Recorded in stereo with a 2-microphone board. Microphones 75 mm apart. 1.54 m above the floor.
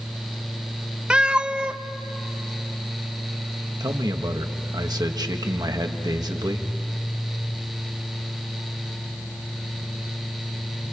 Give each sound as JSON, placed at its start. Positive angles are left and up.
{"t": 1.1, "sound": "a cat meowing", "side_deg": -15, "distance_m": 0.7}
{"t": 3.8, "sound": "a man speaking", "side_deg": -65, "distance_m": 1.5}